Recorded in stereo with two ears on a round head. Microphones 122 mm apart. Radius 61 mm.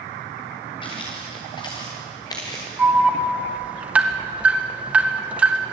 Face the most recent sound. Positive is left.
turn(degrees=-10)  # may be behind; listen again after turning